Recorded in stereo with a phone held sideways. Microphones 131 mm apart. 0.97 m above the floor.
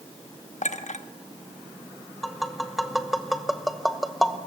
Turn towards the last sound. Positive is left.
turn(degrees=0)  # may be behind; listen again after turning